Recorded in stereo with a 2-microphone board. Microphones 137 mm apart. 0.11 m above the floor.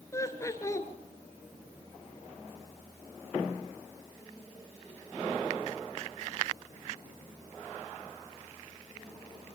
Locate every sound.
0.1 s laughter: 20° left (ahead or behind), 1.5 m